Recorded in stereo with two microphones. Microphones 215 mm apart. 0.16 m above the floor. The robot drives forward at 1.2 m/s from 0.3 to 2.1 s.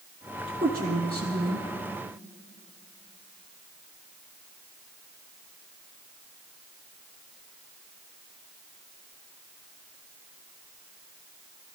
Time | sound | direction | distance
0.5 | a woman speaking | 40° right (ahead or behind) | 1.6 m